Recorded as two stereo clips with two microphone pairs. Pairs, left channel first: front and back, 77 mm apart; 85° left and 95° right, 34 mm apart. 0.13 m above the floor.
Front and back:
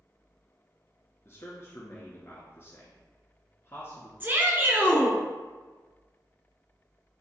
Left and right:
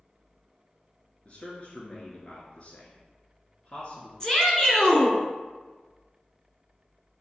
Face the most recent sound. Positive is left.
turn(degrees=140)